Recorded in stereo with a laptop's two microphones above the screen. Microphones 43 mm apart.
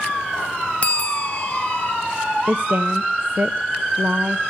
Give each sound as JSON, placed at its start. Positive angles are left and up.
{"t": 0.8, "sound": "a bell", "side_deg": 30, "distance_m": 0.7}
{"t": 2.5, "sound": "a woman speaking", "side_deg": -50, "distance_m": 1.1}